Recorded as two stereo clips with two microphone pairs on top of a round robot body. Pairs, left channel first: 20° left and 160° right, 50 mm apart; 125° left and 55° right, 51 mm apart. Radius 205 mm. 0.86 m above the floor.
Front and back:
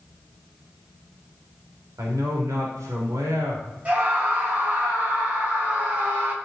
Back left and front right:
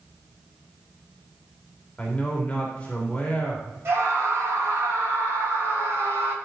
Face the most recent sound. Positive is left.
turn(degrees=-100)